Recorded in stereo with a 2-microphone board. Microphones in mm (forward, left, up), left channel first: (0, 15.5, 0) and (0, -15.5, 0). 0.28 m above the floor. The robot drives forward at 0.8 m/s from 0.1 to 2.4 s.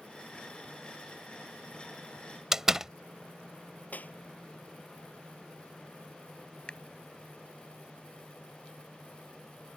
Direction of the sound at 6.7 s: 35° left (ahead or behind).